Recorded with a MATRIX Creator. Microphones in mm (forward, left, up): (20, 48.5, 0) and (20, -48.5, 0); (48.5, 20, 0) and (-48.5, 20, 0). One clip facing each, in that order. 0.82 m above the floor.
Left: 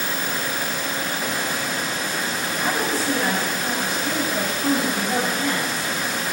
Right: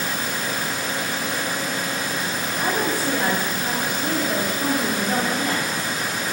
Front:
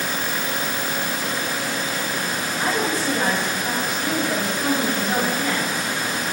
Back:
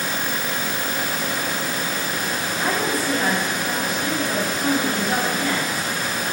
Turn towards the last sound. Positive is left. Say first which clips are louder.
# right 1 dB, even
turn(degrees=-60)